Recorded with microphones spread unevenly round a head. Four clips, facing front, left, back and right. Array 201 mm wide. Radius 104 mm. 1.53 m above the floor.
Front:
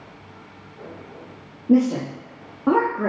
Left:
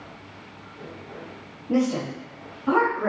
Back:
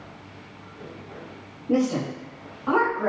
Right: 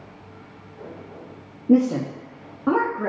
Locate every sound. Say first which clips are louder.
1.7 s a woman speaking: right 5 dB, front 5 dB; 75° right, 0.8 m; by 3.1 s 10° right, 0.7 m